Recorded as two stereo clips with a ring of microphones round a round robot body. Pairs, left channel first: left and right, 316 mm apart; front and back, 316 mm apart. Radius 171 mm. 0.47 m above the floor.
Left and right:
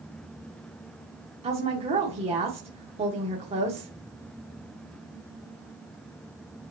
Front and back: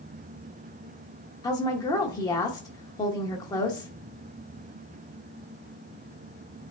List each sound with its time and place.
1.4 s a woman speaking: 55° right, 0.9 m